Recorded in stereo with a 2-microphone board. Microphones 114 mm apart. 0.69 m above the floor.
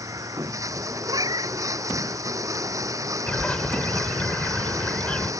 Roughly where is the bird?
Centre.